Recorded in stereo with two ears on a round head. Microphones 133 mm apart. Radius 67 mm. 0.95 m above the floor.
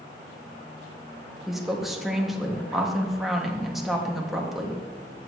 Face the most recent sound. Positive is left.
turn(degrees=0)  # may be behind; listen again after turning